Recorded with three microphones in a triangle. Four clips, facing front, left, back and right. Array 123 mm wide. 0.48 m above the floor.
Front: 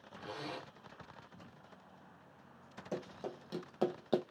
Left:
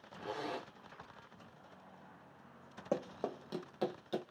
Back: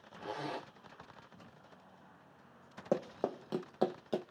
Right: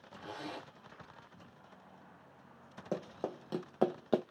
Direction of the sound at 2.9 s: 170° left.